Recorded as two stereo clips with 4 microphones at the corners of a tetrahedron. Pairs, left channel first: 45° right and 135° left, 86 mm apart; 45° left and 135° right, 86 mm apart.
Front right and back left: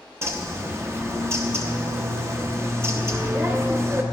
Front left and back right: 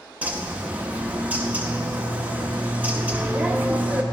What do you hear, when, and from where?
0.2 s a bird: 165° left, 1.0 m